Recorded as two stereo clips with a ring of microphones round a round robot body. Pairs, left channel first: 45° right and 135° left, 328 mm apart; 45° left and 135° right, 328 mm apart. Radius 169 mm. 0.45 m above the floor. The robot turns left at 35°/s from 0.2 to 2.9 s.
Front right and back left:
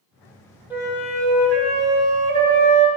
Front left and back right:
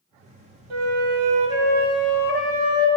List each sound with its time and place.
0.7 s a flute: 140° right, 1.9 m; by 2.9 s 145° left, 1.9 m